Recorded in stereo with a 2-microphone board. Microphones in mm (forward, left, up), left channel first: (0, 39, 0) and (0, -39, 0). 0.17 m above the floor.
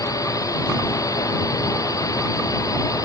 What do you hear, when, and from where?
0.0 s a drone: 50° left (ahead or behind)